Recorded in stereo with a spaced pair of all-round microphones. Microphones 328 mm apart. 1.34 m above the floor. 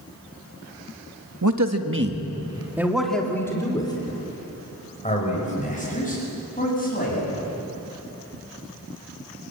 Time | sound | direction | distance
1.4 | a man speaking | 65° right (ahead or behind) | 1.6 m